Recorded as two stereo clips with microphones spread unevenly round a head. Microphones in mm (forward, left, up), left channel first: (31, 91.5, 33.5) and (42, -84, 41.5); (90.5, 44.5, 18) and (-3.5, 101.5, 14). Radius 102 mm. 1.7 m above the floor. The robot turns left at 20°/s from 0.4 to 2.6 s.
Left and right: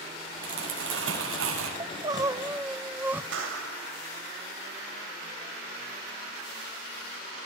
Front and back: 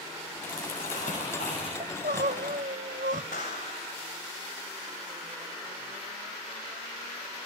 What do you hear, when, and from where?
0.4 s crumpling: 70° right, 9 m; by 1.7 s 95° right, 9 m
1.8 s crying: 155° right, 1.0 m; by 3.2 s 170° right, 1.0 m
3.3 s a clap: 80° right, 7 m